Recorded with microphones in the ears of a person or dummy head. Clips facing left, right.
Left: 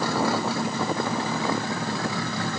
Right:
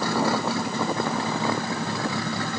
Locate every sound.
Only background noise.